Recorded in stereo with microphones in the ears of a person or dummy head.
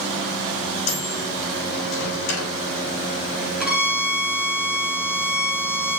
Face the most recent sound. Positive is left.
turn(degrees=-5)  # may be behind; listen again after turning